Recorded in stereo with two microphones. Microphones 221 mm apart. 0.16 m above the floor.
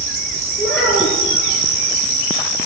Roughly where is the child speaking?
Centre.